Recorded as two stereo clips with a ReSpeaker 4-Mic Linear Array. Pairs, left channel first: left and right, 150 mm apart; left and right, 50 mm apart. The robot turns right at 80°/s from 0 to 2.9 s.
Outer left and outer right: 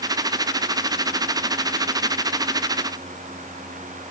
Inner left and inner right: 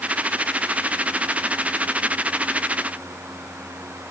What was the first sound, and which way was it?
Only background noise.